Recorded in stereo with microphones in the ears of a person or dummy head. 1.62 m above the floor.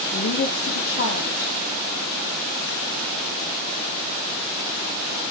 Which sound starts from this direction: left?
A woman speaking, at 0.1 s.